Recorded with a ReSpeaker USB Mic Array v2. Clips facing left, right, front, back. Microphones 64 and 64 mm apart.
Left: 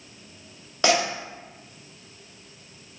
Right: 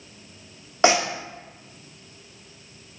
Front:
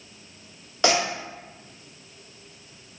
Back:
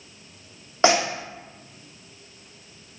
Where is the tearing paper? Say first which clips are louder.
Right 3 dB, back 4 dB; 135° right, 1.4 m.